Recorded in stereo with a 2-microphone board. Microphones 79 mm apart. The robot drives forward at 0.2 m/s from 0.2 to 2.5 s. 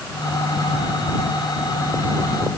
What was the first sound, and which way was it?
Only background noise.